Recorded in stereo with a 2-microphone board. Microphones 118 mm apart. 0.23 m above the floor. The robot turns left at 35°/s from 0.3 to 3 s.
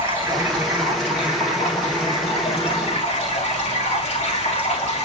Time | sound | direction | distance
0.0 | running water | 165° right | 7.5 m